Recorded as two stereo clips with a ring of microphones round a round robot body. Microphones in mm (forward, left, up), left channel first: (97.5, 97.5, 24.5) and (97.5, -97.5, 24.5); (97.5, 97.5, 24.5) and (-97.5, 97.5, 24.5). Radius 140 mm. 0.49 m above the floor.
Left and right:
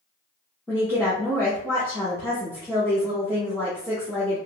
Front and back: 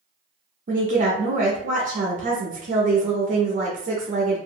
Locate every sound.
0.7 s a woman speaking: 165° left, 0.8 m